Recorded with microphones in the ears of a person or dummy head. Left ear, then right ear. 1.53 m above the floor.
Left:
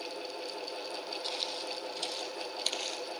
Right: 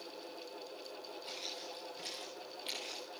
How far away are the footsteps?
About 3.5 m.